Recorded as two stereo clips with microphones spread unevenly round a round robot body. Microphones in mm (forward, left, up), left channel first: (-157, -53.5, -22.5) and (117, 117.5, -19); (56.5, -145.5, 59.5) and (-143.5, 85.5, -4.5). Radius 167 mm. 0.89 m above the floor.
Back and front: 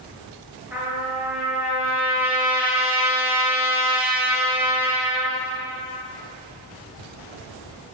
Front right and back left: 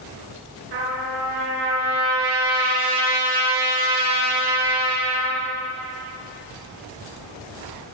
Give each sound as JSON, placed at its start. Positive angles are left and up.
{"t": 0.7, "sound": "a trumpet", "azimuth_deg": 115, "distance_m": 6.0}